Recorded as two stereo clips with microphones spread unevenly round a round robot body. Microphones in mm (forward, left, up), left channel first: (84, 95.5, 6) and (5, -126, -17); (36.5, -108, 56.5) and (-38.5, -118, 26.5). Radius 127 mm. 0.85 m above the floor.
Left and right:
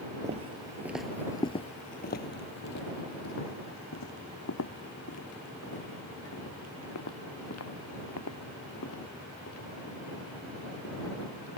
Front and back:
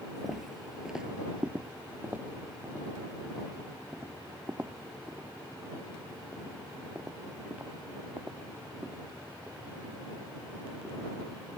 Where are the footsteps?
55° right; by 11.6 s 105° left.